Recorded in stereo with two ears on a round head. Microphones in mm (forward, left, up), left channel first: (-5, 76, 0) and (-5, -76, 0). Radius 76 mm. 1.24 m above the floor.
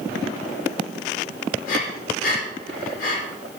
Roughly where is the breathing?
Left.